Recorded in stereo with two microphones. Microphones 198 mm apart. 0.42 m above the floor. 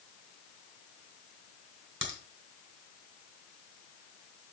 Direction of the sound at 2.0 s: 75° right (ahead or behind).